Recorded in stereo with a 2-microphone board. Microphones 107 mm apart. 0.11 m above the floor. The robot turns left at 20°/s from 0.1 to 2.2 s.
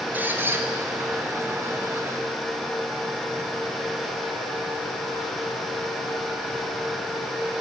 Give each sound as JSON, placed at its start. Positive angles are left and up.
{"t": 0.1, "sound": "a squeak", "side_deg": -15, "distance_m": 1.0}